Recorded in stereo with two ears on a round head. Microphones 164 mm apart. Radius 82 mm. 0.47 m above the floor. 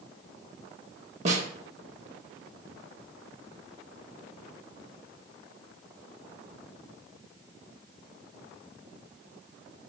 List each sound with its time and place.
1.2 s a snare drum: 40° right (ahead or behind), 0.8 m